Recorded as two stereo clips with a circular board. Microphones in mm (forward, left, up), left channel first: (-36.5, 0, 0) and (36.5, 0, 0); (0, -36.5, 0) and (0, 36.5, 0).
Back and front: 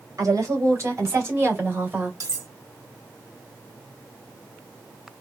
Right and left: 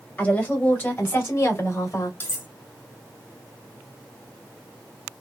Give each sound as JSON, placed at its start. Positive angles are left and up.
{"t": 0.2, "sound": "a woman speaking", "azimuth_deg": -25, "distance_m": 2.0}
{"t": 2.2, "sound": "cutlery clinking", "azimuth_deg": -30, "distance_m": 1.0}